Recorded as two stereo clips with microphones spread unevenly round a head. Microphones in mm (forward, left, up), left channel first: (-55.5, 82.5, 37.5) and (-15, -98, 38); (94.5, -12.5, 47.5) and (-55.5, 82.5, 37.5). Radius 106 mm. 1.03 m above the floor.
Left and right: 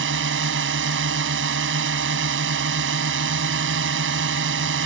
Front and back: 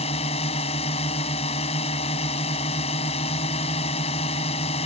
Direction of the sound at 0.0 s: 95° right.